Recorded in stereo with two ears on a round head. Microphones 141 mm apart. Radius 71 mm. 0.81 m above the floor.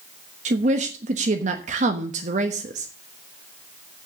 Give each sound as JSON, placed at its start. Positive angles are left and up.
{"t": 0.5, "sound": "a woman speaking", "side_deg": -45, "distance_m": 1.2}